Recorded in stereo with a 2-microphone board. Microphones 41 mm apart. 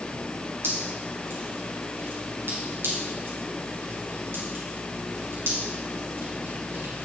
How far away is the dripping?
About 4.5 m.